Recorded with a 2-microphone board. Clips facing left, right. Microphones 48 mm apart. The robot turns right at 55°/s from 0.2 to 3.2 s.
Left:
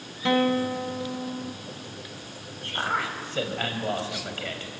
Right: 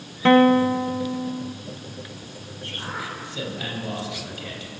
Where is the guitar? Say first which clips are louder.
Right 8 dB; 55° right, 0.7 m; by 1.5 s 15° left, 0.7 m.